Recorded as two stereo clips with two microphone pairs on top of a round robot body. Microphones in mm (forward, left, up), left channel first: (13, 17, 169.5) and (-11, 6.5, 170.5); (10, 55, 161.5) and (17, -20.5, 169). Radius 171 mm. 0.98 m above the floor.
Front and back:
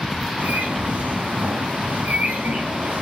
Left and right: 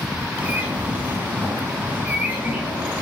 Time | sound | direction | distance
0.4 | a bird | 155° right | 4 m